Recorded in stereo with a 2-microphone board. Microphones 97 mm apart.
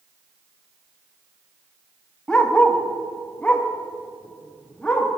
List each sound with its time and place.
2.3 s a dog barking: 10° left (ahead or behind), 1.0 m